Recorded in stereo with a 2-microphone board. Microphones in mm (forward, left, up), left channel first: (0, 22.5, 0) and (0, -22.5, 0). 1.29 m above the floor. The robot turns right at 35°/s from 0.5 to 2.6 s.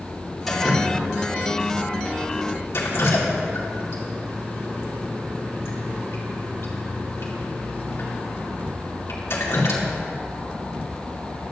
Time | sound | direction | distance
0.5 | dripping | 5° left (ahead or behind) | 2.0 m